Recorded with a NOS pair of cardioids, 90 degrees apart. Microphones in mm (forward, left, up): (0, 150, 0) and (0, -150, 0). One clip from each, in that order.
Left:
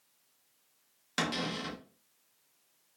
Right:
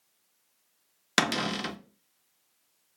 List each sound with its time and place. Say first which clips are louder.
1.2 s a cupboard door: right 7 dB; 55° right, 0.7 m